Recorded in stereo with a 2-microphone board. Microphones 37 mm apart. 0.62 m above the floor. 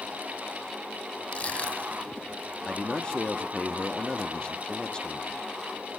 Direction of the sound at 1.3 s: 35° left (ahead or behind).